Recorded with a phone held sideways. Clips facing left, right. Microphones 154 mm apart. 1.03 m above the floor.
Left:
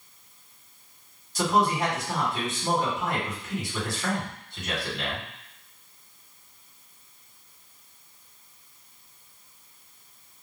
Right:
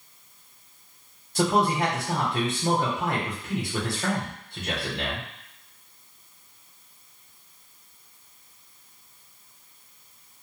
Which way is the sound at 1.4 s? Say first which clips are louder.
Right 1 dB; 60° right (ahead or behind).